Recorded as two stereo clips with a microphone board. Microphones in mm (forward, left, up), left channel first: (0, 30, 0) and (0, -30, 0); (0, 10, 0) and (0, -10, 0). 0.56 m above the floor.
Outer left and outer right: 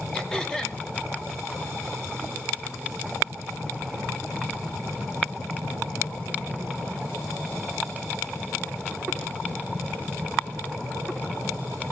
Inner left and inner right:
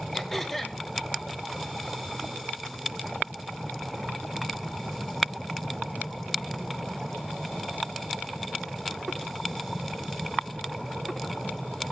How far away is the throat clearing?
About 2.5 m.